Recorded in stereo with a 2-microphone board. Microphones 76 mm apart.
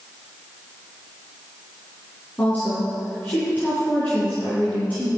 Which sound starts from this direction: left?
A woman speaking, at 2.4 s.